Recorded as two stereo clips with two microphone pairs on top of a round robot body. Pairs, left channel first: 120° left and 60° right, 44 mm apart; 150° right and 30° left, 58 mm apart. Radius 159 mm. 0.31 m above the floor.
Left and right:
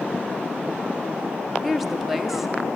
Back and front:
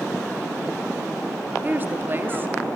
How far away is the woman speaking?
About 1.0 m.